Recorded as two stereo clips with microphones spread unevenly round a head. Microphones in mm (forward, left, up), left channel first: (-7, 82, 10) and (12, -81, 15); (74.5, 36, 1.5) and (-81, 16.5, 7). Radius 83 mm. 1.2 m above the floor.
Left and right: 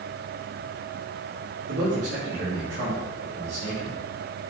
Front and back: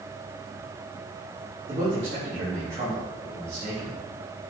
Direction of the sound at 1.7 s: 105° right.